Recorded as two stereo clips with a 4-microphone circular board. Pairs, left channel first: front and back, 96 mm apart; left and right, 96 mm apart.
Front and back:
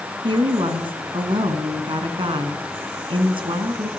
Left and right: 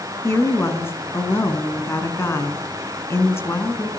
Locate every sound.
0.2 s a woman speaking: 155° left, 4.5 m